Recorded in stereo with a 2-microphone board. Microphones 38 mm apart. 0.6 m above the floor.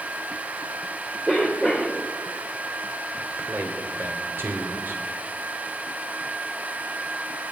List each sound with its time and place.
1.3 s a cough: 5° left (ahead or behind), 2.5 m
3.2 s a man speaking: 65° right (ahead or behind), 2 m